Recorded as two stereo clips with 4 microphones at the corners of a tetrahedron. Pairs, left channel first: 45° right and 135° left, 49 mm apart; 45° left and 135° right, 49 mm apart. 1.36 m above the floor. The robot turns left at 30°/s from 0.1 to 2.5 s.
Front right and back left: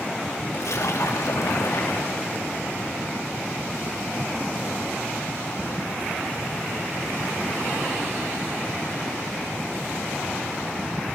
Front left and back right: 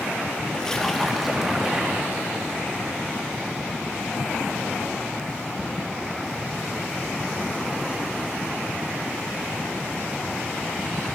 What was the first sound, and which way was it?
A splash, 30° right.